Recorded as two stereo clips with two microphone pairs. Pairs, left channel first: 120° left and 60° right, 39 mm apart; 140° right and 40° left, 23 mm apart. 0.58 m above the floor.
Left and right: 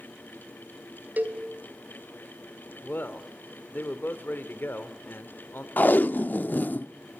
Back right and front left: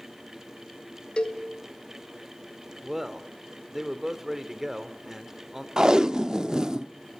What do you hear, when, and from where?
1.2 s a cowbell: 100° right, 2.5 m
2.8 s a man speaking: 105° left, 1.9 m
5.8 s tape being pulled: 90° left, 0.6 m